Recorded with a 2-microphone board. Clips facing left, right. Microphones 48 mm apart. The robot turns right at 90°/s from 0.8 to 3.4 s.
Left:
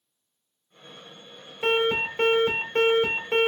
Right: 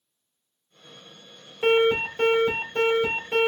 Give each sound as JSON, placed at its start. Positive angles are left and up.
{"t": 1.6, "sound": "an alarm", "azimuth_deg": -20, "distance_m": 2.5}